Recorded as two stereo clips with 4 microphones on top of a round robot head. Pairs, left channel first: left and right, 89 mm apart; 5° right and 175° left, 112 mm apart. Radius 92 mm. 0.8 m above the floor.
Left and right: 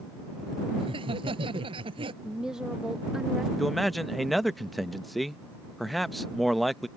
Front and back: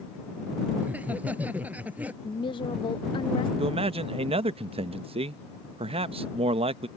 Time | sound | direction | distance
0.8 | laughter | 105° right | ?
2.2 | a woman speaking | 10° right | ?
3.6 | a man speaking | straight behind | ?